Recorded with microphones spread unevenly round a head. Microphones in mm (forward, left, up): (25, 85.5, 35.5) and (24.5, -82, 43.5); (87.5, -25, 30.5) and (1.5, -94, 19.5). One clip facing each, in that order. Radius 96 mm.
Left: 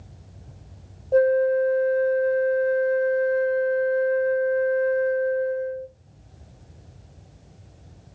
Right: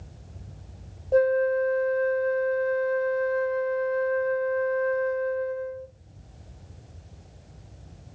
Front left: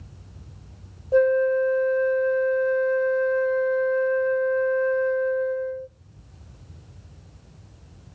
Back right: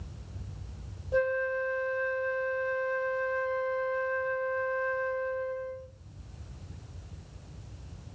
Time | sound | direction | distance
1.1 | a flute | straight ahead | 0.8 m